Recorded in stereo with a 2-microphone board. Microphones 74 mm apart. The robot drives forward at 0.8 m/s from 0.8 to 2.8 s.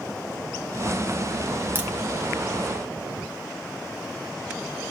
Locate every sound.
1.8 s a crack: 30° right (ahead or behind), 1.5 m